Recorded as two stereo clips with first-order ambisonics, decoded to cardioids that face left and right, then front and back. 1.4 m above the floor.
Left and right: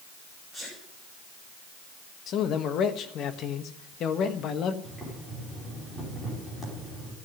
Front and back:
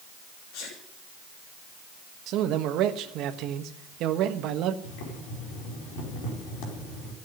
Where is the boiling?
10° left, 4.5 m.